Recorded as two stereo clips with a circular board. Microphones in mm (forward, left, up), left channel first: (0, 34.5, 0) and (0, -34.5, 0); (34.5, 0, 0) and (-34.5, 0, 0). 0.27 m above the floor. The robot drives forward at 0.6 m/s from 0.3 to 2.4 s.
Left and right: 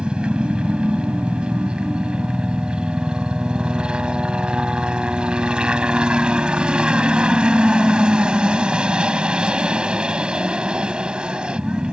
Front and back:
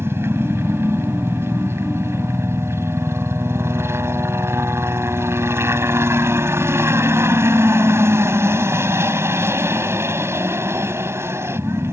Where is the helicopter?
155° right; by 11.9 s 160° right.